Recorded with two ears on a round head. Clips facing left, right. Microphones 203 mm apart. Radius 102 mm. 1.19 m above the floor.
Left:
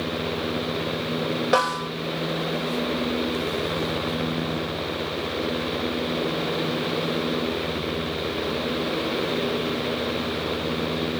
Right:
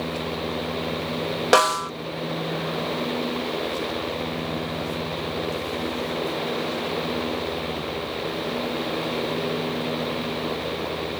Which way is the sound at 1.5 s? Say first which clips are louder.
Right 6 dB; 65° right (ahead or behind).